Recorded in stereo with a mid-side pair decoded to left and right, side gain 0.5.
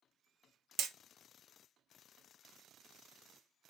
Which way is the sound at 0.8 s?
65° right.